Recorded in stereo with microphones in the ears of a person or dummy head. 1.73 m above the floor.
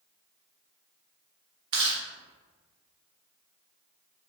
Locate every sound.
1.7 s chewing: 35° right (ahead or behind), 0.7 m